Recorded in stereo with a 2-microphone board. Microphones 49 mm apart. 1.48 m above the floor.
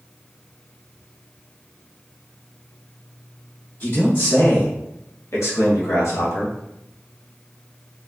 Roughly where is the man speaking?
Left.